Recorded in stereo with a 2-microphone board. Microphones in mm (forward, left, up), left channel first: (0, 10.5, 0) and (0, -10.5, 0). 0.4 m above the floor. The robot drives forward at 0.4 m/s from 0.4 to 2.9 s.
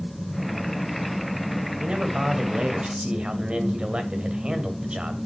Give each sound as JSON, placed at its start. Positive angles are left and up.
{"t": 1.8, "sound": "a man speaking", "side_deg": -45, "distance_m": 1.9}